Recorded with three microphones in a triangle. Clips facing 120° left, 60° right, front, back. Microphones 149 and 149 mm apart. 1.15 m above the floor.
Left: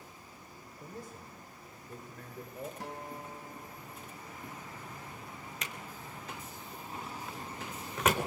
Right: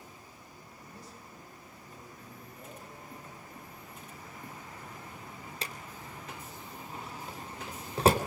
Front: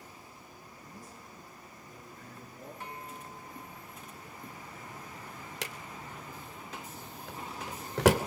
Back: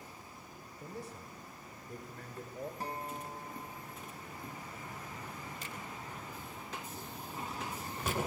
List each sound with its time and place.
0.8 s a man speaking: 160° left, 5 m; by 2.7 s 145° left, 5.5 m
2.8 s a guitar: 130° left, 1.6 m
5.6 s a drawer: straight ahead, 3 m